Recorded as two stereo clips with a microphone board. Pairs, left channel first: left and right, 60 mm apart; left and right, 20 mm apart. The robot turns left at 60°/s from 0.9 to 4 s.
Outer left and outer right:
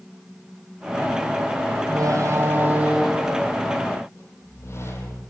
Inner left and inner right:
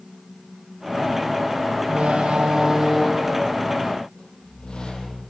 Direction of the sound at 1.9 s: 100° right.